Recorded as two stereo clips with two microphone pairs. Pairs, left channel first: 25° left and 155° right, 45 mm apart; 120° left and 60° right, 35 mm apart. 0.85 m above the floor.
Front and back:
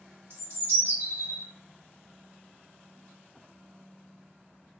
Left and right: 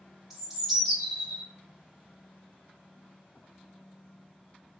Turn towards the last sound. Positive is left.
turn(degrees=-140)